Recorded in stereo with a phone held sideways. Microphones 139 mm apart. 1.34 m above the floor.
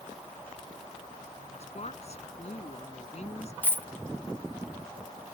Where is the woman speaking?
50° left (ahead or behind).